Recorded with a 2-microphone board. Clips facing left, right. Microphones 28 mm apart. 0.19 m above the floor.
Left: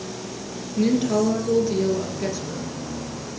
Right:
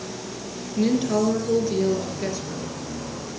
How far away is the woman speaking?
About 3 m.